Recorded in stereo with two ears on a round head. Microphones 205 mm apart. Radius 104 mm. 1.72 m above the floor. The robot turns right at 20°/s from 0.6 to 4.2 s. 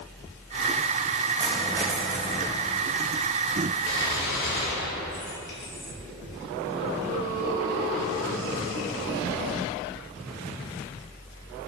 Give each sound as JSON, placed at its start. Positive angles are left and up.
{"t": 1.4, "sound": "a dropped coin", "side_deg": -20, "distance_m": 3.0}
{"t": 3.9, "sound": "a gunshot", "side_deg": 65, "distance_m": 3.5}